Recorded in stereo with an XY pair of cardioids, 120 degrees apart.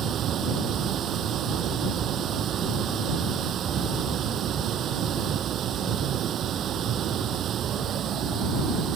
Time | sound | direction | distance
0.0 | running water | 55° right | ?